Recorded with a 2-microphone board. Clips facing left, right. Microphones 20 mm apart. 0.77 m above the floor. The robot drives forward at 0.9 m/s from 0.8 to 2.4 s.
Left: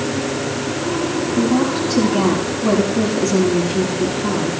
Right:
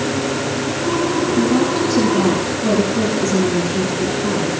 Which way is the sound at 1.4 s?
5° left (ahead or behind).